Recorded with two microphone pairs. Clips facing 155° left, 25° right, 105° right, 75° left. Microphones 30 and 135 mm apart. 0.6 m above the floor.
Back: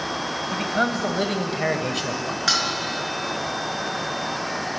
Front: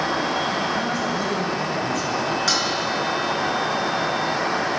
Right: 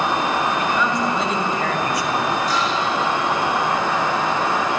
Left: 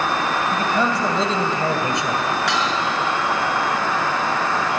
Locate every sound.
0.5 s a man speaking: 130° left, 3 m; by 2.4 s 145° left, 2 m
2.5 s dishes clattering: 75° left, 4.5 m